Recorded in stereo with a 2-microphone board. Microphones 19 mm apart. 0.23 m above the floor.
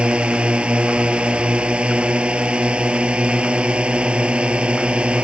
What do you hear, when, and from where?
0.0 s a drone: 65° right (ahead or behind)